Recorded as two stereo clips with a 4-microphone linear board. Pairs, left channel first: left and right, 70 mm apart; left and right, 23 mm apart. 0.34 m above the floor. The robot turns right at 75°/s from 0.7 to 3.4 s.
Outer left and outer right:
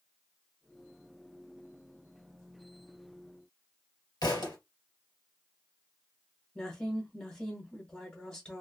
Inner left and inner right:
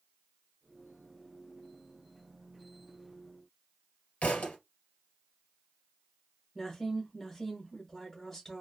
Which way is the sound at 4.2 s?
85° left.